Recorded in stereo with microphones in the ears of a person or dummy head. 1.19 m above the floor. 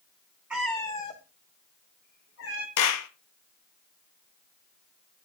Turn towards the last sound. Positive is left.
turn(degrees=85)